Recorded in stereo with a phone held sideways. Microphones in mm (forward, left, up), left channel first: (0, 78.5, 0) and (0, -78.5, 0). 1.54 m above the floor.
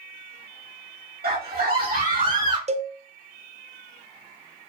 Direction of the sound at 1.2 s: 75° right (ahead or behind).